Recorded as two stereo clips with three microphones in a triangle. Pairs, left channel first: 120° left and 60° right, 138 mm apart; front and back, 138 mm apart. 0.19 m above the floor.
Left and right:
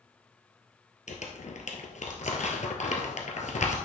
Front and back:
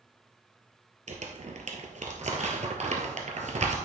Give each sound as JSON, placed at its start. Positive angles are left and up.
{"t": 1.1, "sound": "crumpling", "azimuth_deg": 150, "distance_m": 1.4}